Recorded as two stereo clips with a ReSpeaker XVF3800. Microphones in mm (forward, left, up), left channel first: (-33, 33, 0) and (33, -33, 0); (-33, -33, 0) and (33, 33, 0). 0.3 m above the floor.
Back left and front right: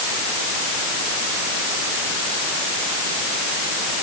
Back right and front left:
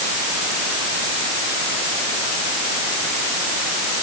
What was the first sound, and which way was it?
Only background noise.